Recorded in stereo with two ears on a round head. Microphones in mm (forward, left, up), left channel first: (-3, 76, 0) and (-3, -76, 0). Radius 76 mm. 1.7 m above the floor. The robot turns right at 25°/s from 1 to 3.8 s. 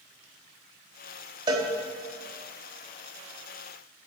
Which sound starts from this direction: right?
A cowbell, at 1.5 s.